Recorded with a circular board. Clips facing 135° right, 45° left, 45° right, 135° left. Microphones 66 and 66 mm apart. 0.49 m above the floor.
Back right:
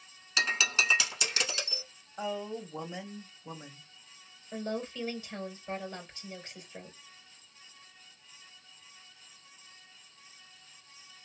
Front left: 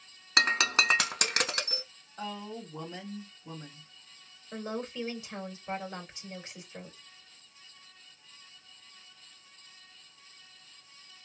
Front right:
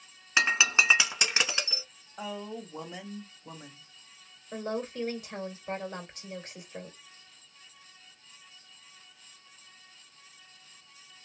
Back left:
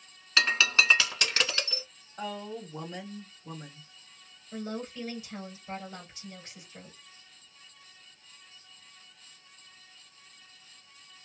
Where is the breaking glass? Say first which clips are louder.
Front left 3 dB, even; 25° left, 0.7 m.